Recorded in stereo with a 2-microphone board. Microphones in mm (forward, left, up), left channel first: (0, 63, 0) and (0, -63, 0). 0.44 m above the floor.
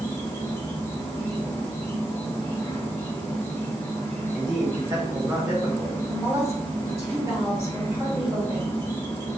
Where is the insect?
25° left (ahead or behind), 1.3 m.